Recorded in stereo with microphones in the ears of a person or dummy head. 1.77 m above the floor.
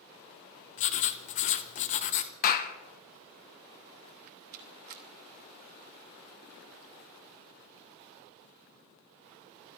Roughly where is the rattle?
Right.